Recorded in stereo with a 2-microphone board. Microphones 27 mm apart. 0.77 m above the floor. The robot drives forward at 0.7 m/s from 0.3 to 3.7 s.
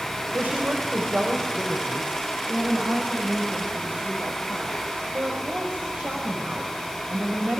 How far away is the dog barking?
I don't hear a dog barking.